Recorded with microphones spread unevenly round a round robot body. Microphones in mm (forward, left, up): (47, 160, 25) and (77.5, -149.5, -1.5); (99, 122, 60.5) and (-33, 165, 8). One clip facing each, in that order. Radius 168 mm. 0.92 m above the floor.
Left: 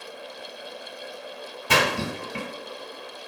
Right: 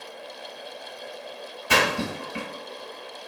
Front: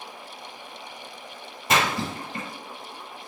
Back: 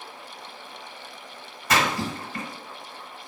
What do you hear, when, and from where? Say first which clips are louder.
1.7 s a splash: even, even; 50° left, 1.7 m